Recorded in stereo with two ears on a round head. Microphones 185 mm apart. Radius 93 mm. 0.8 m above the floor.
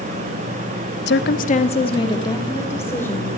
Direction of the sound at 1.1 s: 55° left (ahead or behind).